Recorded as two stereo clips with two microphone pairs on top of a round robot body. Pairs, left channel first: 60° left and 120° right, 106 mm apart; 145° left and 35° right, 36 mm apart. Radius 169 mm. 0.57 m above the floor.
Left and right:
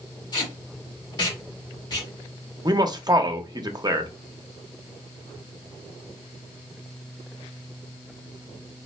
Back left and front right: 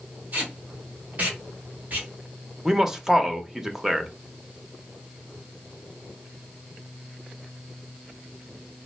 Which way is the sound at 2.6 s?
105° right.